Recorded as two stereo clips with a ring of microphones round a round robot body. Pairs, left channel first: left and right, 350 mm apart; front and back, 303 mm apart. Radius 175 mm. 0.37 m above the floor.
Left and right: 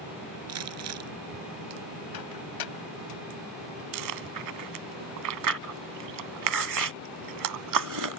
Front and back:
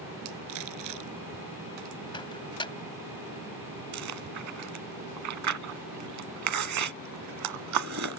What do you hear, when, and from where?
0.5 s crumpling: 135° right
2.1 s a microwave: 75° left
3.9 s chewing: 130° right